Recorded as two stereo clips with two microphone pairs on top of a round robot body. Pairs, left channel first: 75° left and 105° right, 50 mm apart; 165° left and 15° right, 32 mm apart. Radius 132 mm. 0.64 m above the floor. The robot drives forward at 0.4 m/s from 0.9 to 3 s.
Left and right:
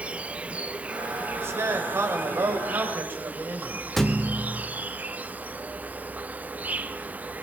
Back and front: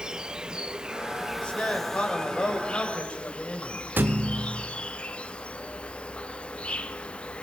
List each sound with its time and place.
0.0 s an insect: 65° right, 0.7 m; by 7.4 s 145° right, 1.0 m
1.4 s a man speaking: 135° right, 3 m; by 3.8 s 140° right, 3.5 m
4.0 s a thud: 10° right, 0.9 m